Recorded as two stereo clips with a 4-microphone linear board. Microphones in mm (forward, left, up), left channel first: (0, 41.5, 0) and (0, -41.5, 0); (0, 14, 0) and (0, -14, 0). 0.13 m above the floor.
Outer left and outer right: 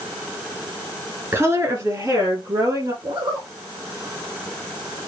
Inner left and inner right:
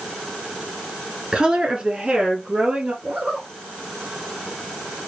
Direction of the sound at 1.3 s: 35° right (ahead or behind).